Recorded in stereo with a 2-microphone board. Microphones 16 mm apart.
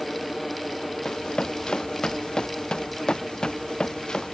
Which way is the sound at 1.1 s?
60° left (ahead or behind).